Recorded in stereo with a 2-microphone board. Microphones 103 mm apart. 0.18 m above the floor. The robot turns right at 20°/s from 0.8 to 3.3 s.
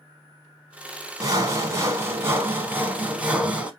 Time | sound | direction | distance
1.2 | sawing | 60° right | 0.9 m